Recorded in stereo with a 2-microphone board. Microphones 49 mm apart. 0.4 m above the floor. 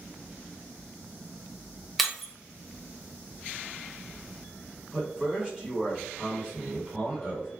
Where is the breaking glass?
Centre (ahead or behind), 0.7 m.